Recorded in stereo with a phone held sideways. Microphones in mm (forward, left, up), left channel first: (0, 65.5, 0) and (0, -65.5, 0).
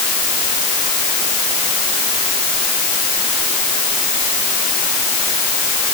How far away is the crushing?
I don't hear crushing.